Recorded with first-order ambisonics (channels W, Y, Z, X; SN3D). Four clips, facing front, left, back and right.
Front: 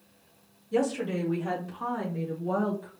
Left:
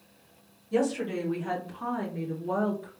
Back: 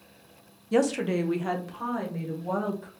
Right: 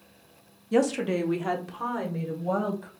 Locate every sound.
0.7 s a woman speaking: 150° right, 0.7 m; by 2.9 s 110° right, 2 m